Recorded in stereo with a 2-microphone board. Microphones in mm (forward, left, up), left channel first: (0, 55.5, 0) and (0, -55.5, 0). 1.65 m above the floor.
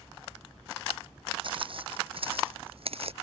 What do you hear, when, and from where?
1.4 s footsteps: 55° right (ahead or behind); by 3.1 s 65° right (ahead or behind)